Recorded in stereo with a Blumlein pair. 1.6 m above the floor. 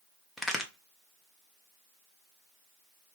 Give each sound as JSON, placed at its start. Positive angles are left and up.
{"t": 0.4, "sound": "a crack", "azimuth_deg": 5, "distance_m": 0.8}